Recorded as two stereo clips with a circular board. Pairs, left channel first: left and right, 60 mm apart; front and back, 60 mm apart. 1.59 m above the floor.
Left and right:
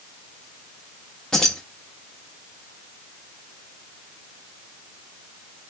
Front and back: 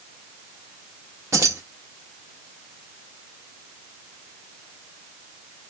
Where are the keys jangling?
165° left, 1.4 m.